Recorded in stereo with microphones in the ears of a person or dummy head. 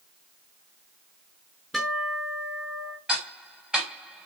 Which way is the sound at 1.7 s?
Centre (ahead or behind).